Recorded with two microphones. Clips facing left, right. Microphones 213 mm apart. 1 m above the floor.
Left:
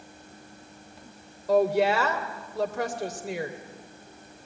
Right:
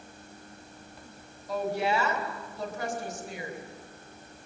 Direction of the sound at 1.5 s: 85° left.